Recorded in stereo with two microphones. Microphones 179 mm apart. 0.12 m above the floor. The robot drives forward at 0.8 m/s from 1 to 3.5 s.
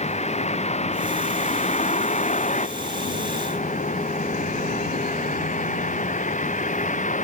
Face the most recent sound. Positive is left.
turn(degrees=45)  # may be behind; listen again after turning